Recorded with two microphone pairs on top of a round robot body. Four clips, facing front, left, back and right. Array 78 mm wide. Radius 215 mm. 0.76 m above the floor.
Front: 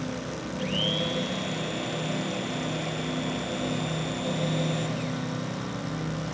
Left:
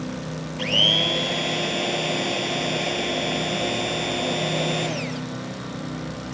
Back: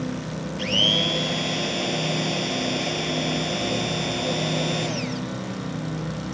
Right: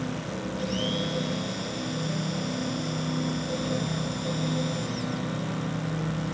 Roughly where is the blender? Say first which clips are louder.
Left 6 dB, back 4 dB; behind left.